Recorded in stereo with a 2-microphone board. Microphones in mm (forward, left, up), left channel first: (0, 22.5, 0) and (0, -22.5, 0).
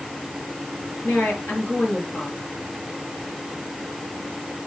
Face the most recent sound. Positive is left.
turn(degrees=40)  # may be behind; listen again after turning